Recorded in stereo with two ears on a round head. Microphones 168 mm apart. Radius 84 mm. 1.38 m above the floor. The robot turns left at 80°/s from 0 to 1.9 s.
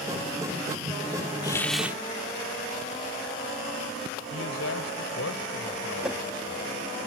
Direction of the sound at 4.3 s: 85° left.